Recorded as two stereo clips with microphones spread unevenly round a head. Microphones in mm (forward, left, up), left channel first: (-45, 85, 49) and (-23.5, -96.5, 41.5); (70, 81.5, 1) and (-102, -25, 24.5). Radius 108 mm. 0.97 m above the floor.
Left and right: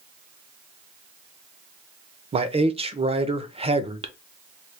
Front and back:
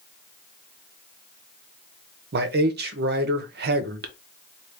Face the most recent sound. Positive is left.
turn(degrees=-125)